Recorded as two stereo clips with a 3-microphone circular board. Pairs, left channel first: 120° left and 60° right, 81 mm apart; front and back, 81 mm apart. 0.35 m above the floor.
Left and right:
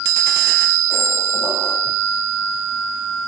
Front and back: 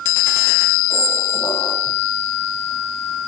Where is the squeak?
10° left, 4 m.